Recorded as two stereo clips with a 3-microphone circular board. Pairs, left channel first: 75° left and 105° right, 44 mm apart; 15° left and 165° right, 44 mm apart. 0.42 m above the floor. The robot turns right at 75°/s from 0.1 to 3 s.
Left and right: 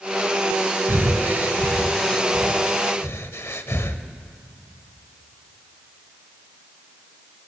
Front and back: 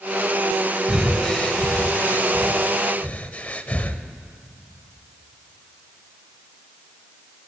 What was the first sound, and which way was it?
Breathing, 90° right.